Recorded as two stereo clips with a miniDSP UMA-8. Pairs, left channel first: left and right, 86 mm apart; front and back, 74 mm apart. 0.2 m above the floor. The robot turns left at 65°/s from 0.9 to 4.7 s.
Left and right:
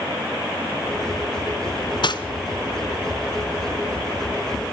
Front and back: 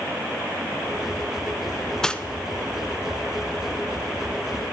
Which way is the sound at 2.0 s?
80° left.